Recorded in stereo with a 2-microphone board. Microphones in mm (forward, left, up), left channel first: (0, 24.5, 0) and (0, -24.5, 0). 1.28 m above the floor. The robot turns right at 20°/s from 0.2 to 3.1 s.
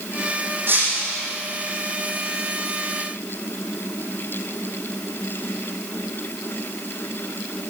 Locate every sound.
0.7 s breaking glass: 40° right (ahead or behind), 6.5 m; by 1.2 s 50° right (ahead or behind), 6.5 m